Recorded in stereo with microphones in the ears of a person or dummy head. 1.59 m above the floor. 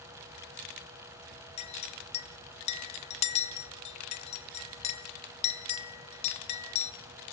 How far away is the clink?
About 1.7 m.